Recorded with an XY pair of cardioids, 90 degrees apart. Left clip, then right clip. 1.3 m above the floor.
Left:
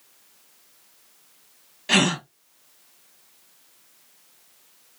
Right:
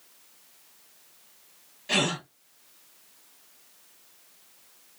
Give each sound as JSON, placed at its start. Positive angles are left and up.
{"t": 1.9, "sound": "a gasp", "azimuth_deg": 70, "distance_m": 1.1}